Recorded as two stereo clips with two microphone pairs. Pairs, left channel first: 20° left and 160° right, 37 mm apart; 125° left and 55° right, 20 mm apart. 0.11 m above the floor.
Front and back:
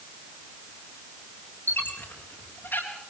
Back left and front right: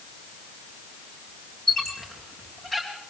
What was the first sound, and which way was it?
A squeak, 50° left.